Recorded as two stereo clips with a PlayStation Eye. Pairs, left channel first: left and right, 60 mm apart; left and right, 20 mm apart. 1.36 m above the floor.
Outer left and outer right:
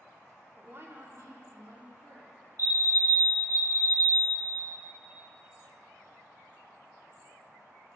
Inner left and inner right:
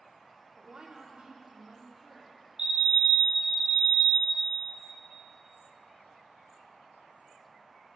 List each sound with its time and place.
0.6 s a woman speaking: 25° right (ahead or behind), 1.0 m; by 2.3 s 75° right (ahead or behind), 3 m
2.6 s a fire alarm: 40° right (ahead or behind), 1.1 m